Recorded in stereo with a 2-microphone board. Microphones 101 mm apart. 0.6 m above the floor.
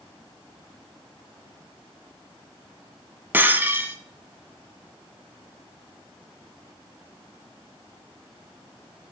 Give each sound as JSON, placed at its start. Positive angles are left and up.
{"t": 3.3, "sound": "breaking glass", "side_deg": -20, "distance_m": 1.0}